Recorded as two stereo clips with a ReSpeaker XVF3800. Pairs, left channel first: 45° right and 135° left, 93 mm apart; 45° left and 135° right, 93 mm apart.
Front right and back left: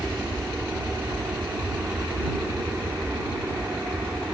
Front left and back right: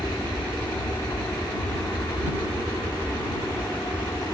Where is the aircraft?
85° left.